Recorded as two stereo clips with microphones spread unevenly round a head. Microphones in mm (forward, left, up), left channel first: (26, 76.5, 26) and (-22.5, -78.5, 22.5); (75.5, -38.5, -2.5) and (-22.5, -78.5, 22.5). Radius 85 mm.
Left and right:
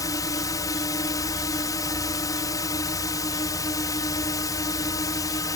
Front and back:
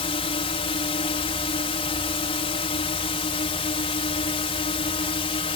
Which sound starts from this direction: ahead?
A drone, at 0.0 s.